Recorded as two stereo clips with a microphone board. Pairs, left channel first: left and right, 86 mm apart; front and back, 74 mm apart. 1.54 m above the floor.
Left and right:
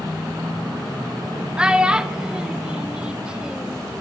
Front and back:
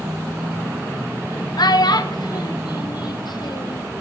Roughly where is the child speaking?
Ahead.